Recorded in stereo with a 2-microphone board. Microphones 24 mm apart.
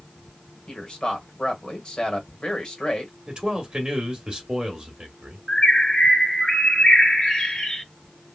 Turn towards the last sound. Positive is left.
turn(degrees=30)  # may be behind; listen again after turning